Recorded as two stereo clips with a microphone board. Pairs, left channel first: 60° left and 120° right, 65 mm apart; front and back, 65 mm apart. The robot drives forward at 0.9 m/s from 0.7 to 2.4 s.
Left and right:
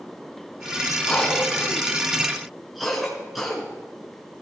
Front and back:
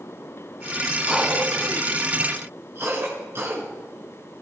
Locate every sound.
1.1 s a cough: 105° left, 1.4 m; by 3.6 s 150° left, 1.9 m